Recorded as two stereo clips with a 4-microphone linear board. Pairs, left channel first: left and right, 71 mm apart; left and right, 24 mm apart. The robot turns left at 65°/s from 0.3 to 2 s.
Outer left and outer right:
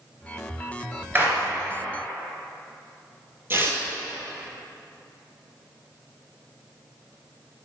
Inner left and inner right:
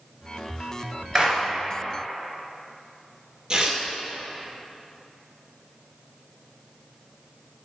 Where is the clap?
25° right (ahead or behind), 3 m; by 1.4 s 40° right (ahead or behind), 3 m.